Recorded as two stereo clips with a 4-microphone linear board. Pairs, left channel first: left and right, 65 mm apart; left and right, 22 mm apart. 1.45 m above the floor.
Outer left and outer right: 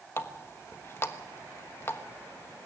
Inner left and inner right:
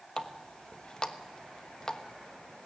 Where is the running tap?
40° left (ahead or behind), 1.2 m.